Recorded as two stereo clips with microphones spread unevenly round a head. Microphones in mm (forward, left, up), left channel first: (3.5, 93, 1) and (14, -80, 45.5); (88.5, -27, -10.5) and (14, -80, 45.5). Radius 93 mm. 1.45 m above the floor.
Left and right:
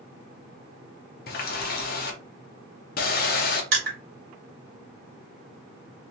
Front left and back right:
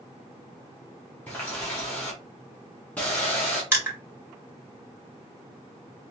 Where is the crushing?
95° right, 2 m.